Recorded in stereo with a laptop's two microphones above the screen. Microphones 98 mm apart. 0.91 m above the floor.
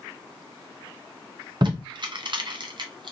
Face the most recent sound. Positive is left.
turn(degrees=-50)  # may be behind; listen again after turning